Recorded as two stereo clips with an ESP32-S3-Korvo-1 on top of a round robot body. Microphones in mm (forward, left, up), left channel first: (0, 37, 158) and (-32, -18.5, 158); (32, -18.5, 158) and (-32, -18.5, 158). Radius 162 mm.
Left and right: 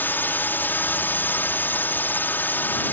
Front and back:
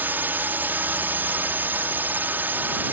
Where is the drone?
120° left.